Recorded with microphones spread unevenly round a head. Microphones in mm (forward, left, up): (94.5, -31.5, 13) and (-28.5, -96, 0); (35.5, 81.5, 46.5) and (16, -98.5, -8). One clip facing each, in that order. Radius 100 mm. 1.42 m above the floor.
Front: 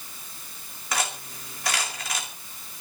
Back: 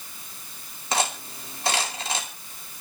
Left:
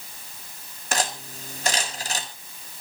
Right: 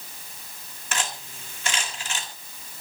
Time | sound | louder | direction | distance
0.9 | cutlery clinking | back 4 dB, left 5 dB | 135° left | 2.0 m